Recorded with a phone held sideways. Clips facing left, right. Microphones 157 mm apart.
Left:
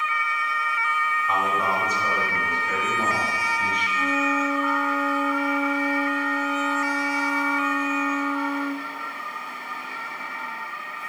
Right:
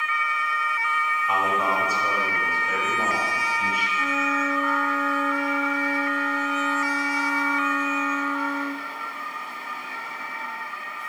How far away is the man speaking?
About 6.5 m.